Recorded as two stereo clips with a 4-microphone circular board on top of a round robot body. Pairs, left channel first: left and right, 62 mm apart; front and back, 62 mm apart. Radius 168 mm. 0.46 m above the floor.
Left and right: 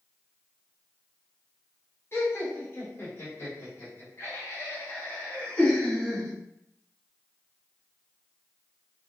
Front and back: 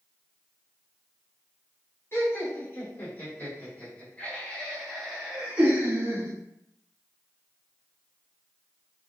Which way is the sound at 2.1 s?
45° left.